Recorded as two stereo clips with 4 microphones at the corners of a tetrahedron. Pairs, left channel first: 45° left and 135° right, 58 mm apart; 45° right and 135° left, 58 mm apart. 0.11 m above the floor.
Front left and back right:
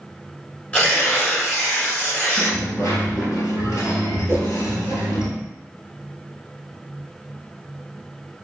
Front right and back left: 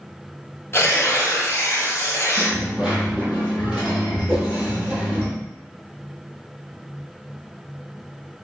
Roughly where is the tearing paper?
Ahead.